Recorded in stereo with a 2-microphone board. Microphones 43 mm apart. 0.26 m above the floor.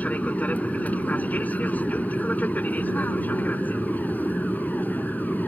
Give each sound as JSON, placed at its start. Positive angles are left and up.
{"t": 0.0, "sound": "an aircraft", "side_deg": 40}